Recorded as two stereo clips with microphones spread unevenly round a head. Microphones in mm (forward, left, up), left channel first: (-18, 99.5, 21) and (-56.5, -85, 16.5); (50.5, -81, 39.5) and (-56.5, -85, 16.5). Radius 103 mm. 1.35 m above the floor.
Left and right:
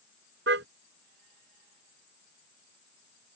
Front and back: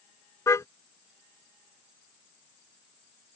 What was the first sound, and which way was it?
A car horn, 60° right.